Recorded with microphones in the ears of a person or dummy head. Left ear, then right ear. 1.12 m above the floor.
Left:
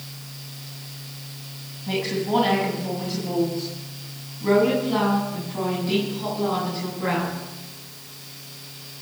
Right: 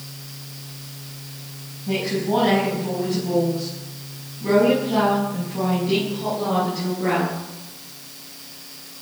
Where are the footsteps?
I don't hear footsteps.